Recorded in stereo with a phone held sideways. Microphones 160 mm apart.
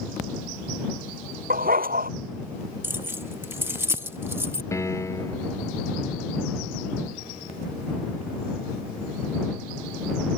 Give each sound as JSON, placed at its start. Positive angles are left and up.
{"t": 1.5, "sound": "a dog barking", "side_deg": -75}
{"t": 2.8, "sound": "keys jangling", "side_deg": -15}
{"t": 4.7, "sound": "a piano", "side_deg": 20}